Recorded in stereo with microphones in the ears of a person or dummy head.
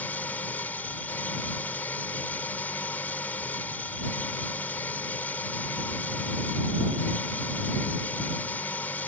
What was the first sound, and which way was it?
An engine running, 10° left (ahead or behind).